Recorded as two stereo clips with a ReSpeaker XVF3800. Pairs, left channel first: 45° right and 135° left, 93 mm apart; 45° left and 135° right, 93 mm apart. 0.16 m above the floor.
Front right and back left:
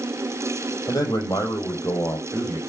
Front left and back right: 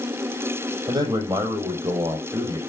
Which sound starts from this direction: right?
A man speaking, at 0.9 s.